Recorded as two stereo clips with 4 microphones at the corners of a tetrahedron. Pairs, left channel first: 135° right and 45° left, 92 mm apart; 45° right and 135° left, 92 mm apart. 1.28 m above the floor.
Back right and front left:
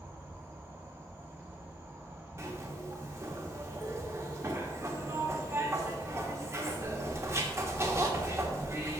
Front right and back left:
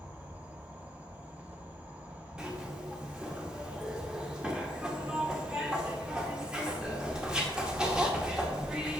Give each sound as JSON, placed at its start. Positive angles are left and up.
{"t": 0.0, "sound": "an insect", "azimuth_deg": 80, "distance_m": 1.2}
{"t": 2.4, "sound": "a zipper", "azimuth_deg": 60, "distance_m": 1.0}